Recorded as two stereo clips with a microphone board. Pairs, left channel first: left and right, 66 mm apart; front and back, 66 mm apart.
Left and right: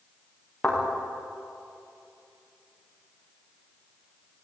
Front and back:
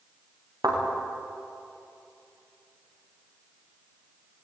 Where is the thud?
170° left, 8.5 m.